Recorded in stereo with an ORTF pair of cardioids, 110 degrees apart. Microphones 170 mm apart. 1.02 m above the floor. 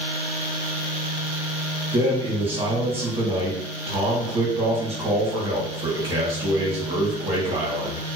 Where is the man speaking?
35° right, 1.3 m.